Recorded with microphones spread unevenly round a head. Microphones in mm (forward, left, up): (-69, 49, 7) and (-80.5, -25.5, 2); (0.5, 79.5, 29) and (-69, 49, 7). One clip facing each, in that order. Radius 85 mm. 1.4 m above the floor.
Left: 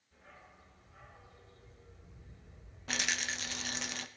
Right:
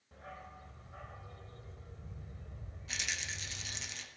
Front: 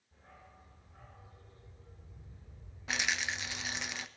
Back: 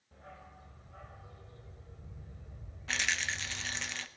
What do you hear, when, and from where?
0.1 s a dog barking: 115° right, 2.0 m
2.9 s a rattle: 90° left, 0.8 m